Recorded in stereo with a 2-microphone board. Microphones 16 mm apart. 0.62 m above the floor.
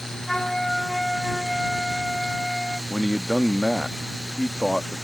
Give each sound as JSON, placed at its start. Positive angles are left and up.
{"t": 0.3, "sound": "a flute", "side_deg": 35}
{"t": 2.9, "sound": "a man speaking", "side_deg": 20}